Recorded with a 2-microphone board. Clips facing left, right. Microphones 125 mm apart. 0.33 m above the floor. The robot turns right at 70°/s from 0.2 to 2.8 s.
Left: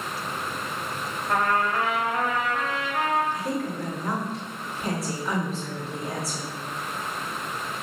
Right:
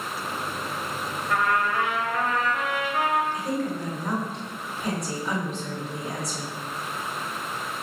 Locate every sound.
1.3 s a trumpet: 95° left, 0.7 m; by 3.2 s 160° right, 0.7 m
3.3 s a woman speaking: centre (ahead or behind), 1.6 m